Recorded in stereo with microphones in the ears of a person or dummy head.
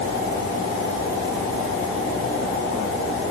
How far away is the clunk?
I don't hear a clunk.